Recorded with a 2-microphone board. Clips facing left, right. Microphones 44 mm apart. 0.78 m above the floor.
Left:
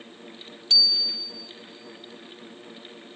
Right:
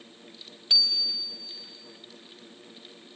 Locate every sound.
0.7 s a bicycle bell: 10° right (ahead or behind), 2.5 m